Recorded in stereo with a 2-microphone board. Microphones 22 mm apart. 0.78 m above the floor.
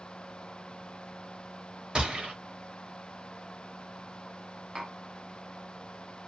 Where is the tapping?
40° right (ahead or behind), 1.4 m.